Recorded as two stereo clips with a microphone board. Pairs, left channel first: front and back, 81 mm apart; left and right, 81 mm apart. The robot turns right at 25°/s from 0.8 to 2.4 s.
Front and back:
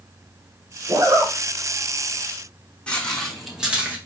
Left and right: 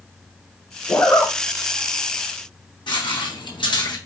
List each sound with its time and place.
0.9 s a zipper: 140° left, 1.2 m; by 1.3 s 150° left, 1.2 m
2.9 s footsteps: 75° left, 1.4 m; by 4.0 s 110° left, 1.2 m